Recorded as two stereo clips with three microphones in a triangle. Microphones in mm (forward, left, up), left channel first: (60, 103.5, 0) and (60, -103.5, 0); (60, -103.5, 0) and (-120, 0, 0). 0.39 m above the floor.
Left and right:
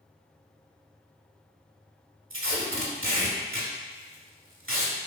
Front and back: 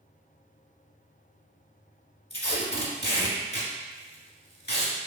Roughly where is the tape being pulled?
Right.